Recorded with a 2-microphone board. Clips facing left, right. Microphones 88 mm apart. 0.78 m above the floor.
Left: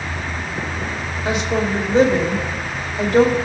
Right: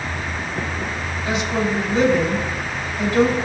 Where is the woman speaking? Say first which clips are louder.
Left 2 dB; 70° left (ahead or behind), 3 m.